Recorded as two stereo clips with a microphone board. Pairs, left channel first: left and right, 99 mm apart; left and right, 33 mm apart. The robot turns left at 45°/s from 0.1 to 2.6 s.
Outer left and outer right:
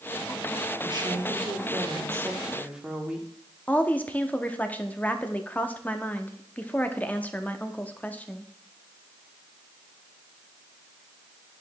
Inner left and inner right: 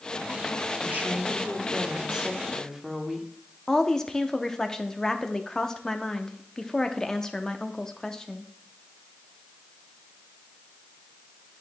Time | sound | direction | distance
0.8 | a woman speaking | 90° right | 1.2 m
3.7 | a woman speaking | 15° left (ahead or behind) | 0.6 m